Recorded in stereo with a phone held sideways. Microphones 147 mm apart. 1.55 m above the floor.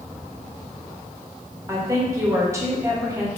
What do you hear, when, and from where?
1.7 s a woman speaking: 20° right (ahead or behind), 0.8 m